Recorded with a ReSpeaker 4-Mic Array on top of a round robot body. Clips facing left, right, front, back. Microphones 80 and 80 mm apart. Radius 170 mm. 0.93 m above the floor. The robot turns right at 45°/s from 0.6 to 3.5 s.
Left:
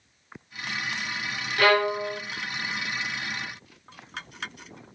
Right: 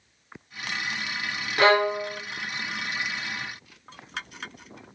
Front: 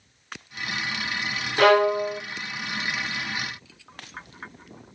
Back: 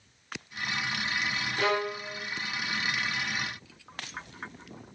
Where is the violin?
30° right, 0.6 m; by 2.2 s straight ahead, 0.6 m.